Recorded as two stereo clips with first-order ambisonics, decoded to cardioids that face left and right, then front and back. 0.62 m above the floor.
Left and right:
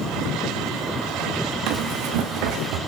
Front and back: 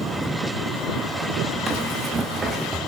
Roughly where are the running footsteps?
Right.